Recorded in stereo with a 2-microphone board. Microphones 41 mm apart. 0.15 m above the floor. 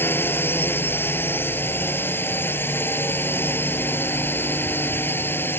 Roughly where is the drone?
Left.